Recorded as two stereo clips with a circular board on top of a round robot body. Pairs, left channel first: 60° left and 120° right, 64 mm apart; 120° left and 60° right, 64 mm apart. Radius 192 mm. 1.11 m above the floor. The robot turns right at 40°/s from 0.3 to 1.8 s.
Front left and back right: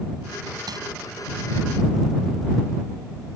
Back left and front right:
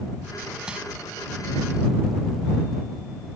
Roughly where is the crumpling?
Behind right.